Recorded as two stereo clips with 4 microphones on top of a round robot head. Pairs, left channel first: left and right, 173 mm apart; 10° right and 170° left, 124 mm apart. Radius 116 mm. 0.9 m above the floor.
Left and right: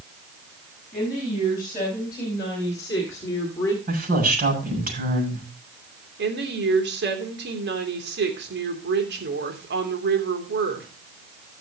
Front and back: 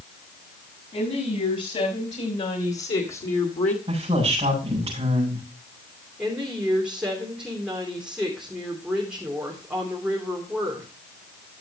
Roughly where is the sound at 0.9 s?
Ahead.